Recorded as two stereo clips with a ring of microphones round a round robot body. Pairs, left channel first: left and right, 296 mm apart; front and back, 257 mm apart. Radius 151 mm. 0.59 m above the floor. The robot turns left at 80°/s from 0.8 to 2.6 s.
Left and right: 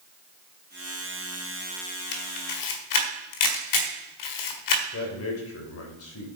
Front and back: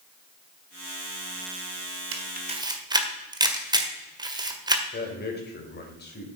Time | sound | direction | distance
2.1 | a camera shutter | 145° left | 1.7 m
4.9 | a man speaking | 50° left | 3.5 m